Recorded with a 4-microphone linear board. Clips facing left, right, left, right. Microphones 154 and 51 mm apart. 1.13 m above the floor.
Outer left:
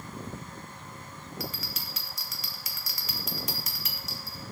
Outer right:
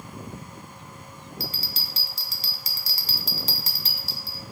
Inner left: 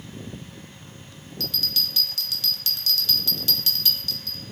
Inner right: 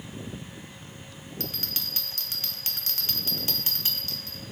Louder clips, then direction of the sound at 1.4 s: Outer right 1 dB, inner left 7 dB; 30° right (ahead or behind).